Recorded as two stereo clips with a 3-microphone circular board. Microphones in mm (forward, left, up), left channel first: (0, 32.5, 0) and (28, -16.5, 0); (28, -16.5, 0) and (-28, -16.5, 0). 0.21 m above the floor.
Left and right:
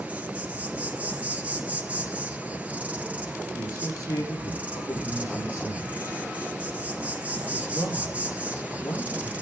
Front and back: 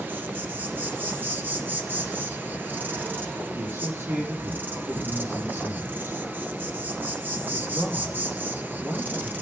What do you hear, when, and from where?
0.0 s an insect: 130° right, 1.8 m
3.5 s a man speaking: 135° left, 6.5 m